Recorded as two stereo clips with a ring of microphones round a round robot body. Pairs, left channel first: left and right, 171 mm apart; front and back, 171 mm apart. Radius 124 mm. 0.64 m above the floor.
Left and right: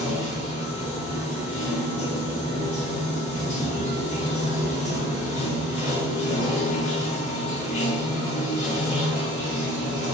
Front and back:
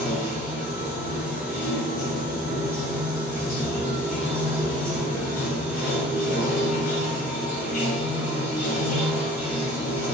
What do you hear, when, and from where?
0.0 s running water: 40° left, 1.6 m